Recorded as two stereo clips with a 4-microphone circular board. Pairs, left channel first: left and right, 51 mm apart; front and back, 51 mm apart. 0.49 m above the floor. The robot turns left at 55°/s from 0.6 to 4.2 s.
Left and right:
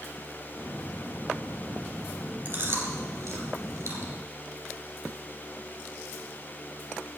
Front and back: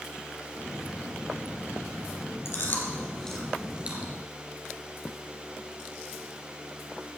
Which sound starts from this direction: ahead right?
Chewing, at 2.5 s.